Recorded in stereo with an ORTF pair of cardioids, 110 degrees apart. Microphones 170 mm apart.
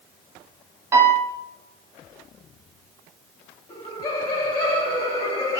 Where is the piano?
15° right, 1.2 m.